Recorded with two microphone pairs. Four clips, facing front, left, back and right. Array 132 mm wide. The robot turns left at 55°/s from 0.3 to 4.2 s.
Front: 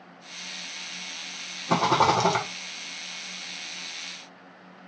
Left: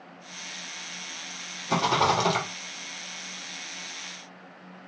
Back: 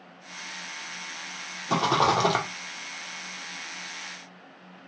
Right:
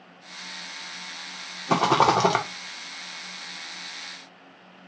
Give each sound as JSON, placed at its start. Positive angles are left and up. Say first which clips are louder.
{"t": 1.7, "sound": "a rattle", "louder": "right 4 dB, front 2 dB", "azimuth_deg": -65, "distance_m": 0.7}